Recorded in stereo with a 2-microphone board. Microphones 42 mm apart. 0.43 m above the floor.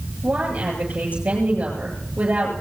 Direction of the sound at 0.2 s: 40° right (ahead or behind).